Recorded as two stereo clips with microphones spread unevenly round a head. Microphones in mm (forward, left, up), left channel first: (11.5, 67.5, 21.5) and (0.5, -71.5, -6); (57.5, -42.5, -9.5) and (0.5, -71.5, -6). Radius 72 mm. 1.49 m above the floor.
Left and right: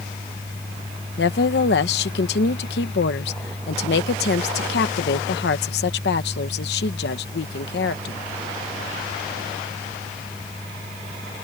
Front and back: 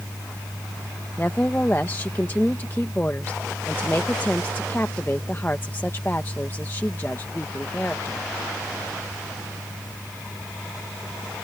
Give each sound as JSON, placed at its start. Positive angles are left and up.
{"t": 1.2, "sound": "a woman speaking", "azimuth_deg": 105}